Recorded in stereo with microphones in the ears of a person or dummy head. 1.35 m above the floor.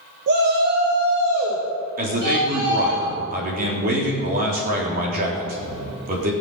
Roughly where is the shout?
Right.